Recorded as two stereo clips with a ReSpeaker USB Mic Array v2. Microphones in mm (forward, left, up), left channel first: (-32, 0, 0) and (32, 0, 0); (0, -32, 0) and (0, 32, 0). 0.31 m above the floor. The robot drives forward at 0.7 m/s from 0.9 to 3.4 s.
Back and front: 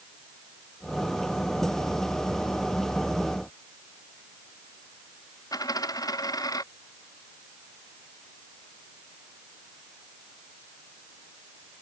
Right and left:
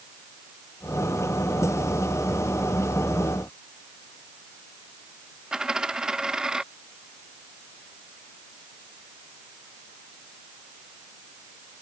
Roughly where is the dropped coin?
Behind.